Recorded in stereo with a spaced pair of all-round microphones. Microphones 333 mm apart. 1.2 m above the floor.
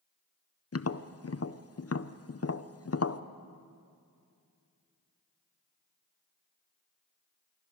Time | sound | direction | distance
0.7 | tapping | 45° left (ahead or behind) | 0.6 m